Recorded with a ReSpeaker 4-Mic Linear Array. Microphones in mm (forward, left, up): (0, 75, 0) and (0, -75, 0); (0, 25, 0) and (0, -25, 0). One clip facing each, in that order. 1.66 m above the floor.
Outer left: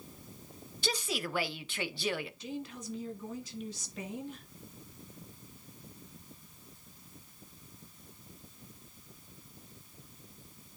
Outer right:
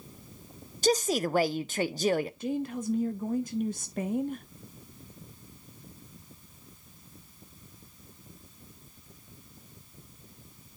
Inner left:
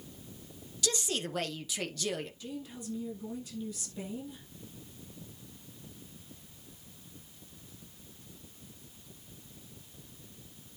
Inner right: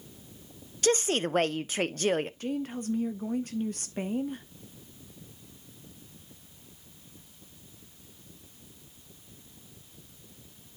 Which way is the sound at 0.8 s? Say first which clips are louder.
Outer right 10 dB, inner right 9 dB; 45° right (ahead or behind).